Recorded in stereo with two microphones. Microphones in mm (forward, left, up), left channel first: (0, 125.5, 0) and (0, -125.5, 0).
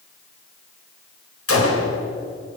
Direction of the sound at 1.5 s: 60° left (ahead or behind).